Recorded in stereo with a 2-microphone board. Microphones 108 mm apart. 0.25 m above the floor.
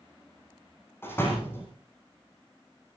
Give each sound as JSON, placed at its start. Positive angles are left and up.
{"t": 1.0, "sound": "a door slam", "side_deg": 25, "distance_m": 7.5}